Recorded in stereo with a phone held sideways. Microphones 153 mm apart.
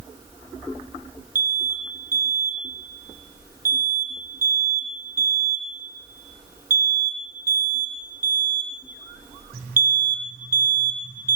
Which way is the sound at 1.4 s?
65° right (ahead or behind).